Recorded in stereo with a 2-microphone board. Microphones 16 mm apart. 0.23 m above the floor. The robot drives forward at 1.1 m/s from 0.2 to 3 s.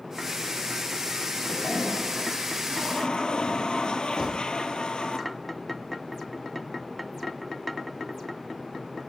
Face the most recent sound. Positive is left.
turn(degrees=-50)  # may be behind; listen again after turning